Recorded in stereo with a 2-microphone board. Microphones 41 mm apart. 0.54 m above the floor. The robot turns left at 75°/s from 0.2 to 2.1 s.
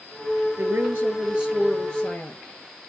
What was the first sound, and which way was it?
A woman speaking, 100° right.